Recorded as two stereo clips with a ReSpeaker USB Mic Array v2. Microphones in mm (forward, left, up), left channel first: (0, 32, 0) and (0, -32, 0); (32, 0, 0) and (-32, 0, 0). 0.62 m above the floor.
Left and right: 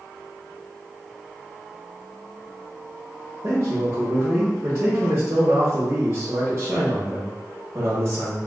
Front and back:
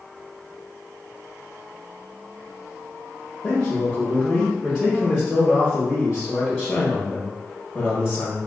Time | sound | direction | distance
3.4 | a man speaking | 90° right | 1.0 m